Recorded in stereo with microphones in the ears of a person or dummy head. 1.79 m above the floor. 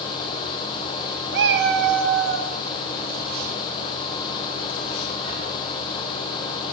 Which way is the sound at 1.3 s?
60° right (ahead or behind).